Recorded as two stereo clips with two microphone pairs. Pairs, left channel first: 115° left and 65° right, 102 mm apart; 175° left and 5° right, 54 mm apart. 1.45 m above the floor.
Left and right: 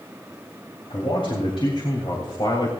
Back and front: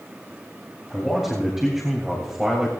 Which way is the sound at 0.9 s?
85° left.